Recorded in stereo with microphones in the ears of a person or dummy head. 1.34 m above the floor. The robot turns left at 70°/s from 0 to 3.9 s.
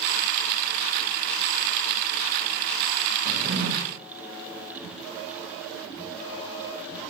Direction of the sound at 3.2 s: 35° right.